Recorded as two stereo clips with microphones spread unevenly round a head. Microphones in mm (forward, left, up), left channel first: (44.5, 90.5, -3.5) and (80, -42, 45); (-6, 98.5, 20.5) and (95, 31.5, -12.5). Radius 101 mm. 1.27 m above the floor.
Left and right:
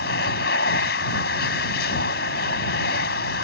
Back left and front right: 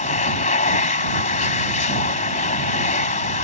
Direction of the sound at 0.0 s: 150° left.